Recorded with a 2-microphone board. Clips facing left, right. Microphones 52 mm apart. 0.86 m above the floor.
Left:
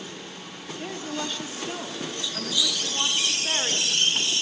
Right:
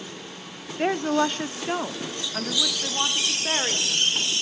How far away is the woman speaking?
About 1.3 m.